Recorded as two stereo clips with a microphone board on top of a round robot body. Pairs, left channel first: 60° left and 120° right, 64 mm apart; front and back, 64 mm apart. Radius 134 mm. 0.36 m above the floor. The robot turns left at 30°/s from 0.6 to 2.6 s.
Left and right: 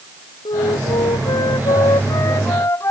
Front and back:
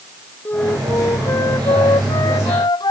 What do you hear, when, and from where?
0.5 s a flute: 70° left; by 2.9 s 10° left